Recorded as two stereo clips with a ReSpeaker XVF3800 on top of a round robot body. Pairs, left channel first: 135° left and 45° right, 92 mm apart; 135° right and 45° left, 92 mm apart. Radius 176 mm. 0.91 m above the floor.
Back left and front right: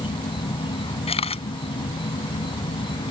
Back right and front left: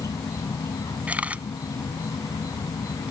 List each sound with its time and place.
0.0 s an insect: 170° left
1.1 s a camera shutter: 120° left